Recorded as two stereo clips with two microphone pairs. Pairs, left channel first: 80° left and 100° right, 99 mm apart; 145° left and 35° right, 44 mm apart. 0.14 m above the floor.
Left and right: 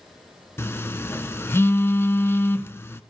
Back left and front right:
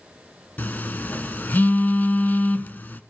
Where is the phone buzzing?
130° left, 0.6 m.